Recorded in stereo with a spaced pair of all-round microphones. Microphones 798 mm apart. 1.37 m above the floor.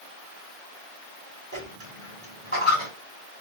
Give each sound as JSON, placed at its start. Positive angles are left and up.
{"t": 1.5, "sound": "a dropped coin", "side_deg": -15, "distance_m": 2.0}